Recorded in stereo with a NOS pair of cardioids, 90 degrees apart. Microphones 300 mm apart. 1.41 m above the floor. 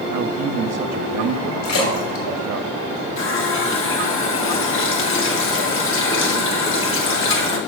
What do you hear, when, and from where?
0.1 s a man speaking: 60° right, 1.1 m
1.6 s a splash: 65° left, 4.5 m
3.2 s a running tap: 45° left, 1.7 m